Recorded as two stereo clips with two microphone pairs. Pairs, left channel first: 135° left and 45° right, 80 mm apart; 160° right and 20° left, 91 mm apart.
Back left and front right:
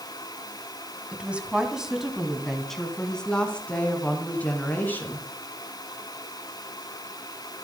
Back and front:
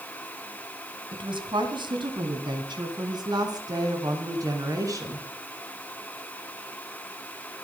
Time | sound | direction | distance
1.1 | a woman speaking | 25° left | 3 m